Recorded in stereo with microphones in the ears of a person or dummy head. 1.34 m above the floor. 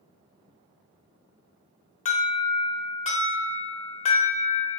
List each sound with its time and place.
2.0 s an alarm: 35° left (ahead or behind), 0.8 m